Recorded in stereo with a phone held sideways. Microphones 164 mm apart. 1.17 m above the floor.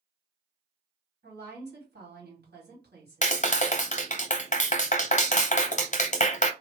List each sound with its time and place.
1.2 s a woman speaking: 80° right, 2 m
3.2 s a clap: 45° left (ahead or behind), 0.5 m